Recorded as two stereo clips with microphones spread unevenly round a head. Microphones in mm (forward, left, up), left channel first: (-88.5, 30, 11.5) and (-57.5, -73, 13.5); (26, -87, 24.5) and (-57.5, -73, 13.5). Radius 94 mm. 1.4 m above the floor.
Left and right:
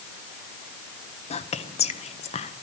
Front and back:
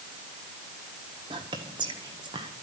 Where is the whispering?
125° left, 1.4 m.